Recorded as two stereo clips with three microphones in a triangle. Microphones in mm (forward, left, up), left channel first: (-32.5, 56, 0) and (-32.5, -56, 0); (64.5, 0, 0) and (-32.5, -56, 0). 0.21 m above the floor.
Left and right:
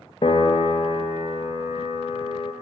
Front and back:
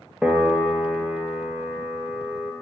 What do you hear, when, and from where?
0.2 s a piano: 130° left, 0.6 m